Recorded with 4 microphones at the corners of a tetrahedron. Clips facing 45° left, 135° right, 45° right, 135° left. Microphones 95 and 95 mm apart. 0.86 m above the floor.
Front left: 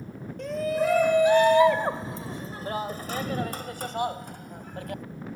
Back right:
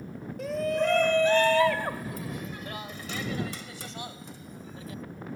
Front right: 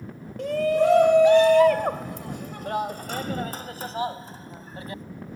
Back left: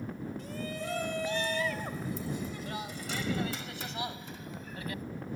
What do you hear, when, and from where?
0.4 s a shout: 50° right; by 5.0 s 15° left